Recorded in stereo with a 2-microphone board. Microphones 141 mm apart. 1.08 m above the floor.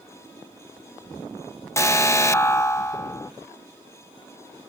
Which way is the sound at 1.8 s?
20° left (ahead or behind).